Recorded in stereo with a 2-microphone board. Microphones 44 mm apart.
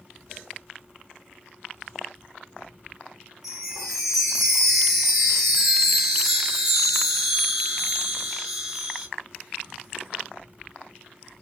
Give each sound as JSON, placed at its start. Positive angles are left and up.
{"t": 3.4, "sound": "a chime", "side_deg": -5, "distance_m": 1.3}